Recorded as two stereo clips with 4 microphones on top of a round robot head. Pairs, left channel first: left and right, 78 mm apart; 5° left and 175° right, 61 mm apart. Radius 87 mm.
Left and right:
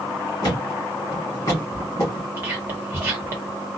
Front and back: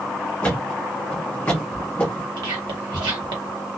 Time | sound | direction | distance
0.4 | a thud | 60° left | 1.3 m
2.4 | whispering | 155° right | 1.2 m